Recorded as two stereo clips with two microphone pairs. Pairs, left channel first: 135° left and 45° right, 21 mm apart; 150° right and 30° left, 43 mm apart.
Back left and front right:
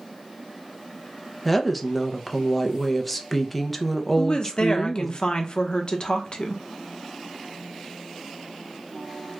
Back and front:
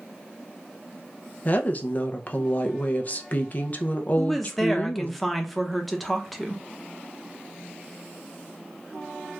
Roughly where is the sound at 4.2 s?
Behind left.